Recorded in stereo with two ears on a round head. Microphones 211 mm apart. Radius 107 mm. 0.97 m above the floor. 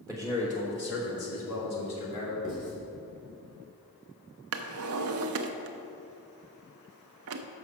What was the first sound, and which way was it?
A man speaking, 5° left (ahead or behind).